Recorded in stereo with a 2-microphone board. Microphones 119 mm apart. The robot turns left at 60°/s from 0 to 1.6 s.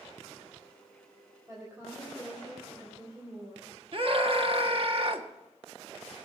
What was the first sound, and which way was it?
A woman speaking, 30° right (ahead or behind).